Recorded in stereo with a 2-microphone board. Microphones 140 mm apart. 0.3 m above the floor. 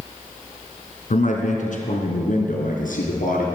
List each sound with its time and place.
1.1 s a man speaking: 65° left (ahead or behind), 3 m; by 3.5 s 75° left (ahead or behind), 4 m